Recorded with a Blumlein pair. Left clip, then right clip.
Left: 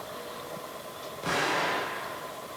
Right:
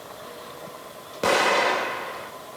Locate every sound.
1.2 s an explosion: 35° right, 4.5 m